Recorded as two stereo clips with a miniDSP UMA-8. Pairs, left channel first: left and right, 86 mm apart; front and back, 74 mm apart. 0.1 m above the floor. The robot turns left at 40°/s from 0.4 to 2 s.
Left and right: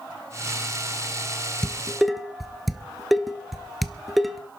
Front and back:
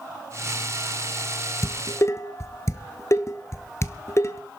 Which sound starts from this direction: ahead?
Dishes clattering, at 1.6 s.